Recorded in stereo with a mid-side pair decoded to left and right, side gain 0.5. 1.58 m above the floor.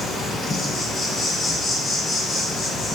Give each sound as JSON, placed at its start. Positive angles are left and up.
{"t": 0.0, "sound": "an insect", "azimuth_deg": 35, "distance_m": 1.1}